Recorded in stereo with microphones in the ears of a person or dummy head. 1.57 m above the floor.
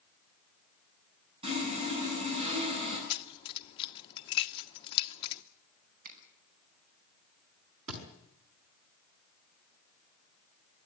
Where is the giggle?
I don't hear a giggle.